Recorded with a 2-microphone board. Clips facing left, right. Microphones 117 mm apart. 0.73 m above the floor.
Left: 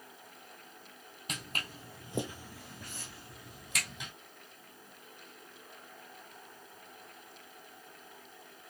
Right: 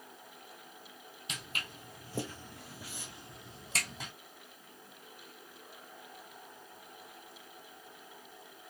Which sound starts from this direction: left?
Footsteps, at 1.3 s.